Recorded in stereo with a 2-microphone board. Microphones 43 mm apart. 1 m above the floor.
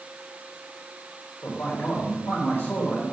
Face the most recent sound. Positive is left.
turn(degrees=75)  # may be behind; listen again after turning